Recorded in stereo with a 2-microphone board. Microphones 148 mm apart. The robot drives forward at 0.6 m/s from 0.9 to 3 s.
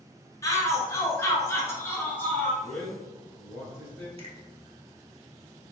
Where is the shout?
20° left (ahead or behind), 1.2 m; by 2.5 s 15° left (ahead or behind), 1.6 m.